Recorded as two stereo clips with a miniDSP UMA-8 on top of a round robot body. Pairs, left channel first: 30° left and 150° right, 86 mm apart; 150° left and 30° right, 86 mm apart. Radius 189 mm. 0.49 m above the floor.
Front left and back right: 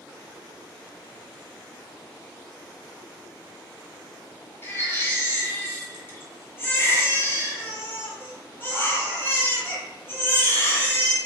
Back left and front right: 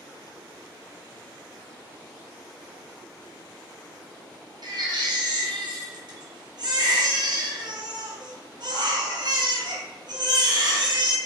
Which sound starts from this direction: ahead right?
A baby crying, at 4.6 s.